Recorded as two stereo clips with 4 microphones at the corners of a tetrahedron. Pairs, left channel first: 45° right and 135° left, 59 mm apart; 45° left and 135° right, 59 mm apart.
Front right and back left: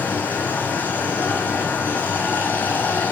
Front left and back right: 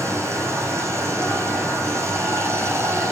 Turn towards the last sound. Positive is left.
turn(degrees=-105)